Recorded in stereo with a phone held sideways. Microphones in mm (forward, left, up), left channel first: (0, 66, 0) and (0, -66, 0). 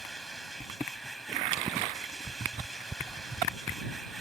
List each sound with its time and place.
0.0 s a machine running: centre (ahead or behind)